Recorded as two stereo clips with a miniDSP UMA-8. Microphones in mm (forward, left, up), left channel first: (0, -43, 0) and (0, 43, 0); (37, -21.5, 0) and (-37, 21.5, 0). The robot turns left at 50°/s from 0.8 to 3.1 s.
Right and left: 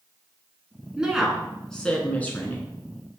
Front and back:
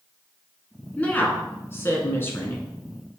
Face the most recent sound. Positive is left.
turn(degrees=-85)